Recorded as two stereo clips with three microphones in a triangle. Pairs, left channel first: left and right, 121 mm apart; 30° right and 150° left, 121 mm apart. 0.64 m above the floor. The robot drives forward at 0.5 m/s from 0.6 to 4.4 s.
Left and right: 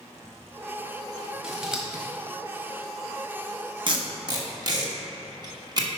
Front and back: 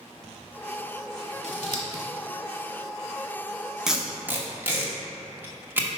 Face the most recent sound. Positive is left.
turn(degrees=-140)